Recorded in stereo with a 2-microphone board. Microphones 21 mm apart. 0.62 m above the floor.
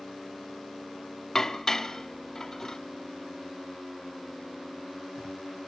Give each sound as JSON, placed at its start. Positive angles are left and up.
{"t": 1.4, "sound": "dishes clattering", "side_deg": 25, "distance_m": 0.6}